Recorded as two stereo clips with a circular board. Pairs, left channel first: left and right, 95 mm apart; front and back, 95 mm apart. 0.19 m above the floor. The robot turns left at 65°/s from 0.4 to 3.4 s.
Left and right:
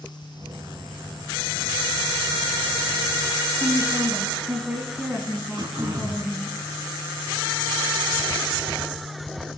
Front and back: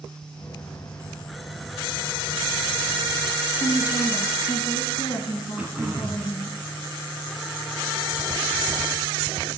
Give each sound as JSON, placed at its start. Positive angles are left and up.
{"t": 3.6, "sound": "a woman speaking", "azimuth_deg": -15, "distance_m": 1.4}
{"t": 5.6, "sound": "throat clearing", "azimuth_deg": -115, "distance_m": 1.2}